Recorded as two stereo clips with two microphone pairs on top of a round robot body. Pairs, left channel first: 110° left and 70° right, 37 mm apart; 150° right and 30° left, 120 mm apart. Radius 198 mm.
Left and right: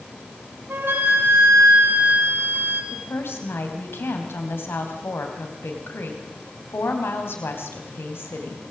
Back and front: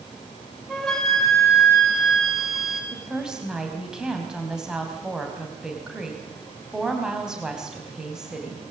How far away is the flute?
About 5.5 m.